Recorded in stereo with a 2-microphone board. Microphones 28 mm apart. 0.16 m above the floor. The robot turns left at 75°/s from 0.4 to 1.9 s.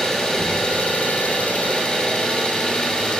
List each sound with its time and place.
0.0 s an engine running: 160° left, 1.2 m; by 3.2 s 50° left, 1.2 m